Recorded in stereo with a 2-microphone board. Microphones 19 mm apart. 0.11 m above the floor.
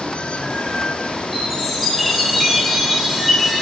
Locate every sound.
0.0 s running water: 80° left, 1.3 m
1.3 s a chime: centre (ahead or behind), 4.5 m